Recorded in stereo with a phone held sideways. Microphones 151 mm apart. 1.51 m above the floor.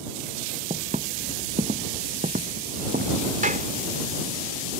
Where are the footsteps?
50° right (ahead or behind); by 3.2 s 65° right (ahead or behind).